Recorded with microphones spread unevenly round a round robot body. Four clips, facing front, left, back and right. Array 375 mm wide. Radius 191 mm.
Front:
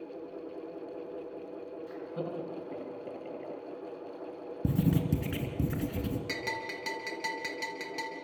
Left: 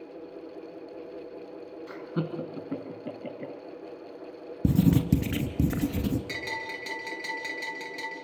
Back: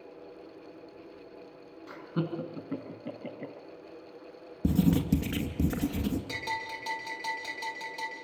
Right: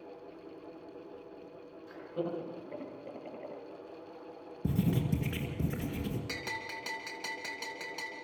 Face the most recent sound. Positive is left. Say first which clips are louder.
# left 5 dB, back 1 dB
turn(degrees=15)